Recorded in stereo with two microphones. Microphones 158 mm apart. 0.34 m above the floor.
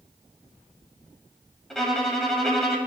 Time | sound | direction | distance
1.7 | a violin | 5° left (ahead or behind) | 1.0 m